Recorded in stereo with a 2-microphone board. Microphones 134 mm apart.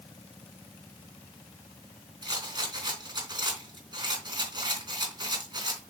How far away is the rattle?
About 3.5 m.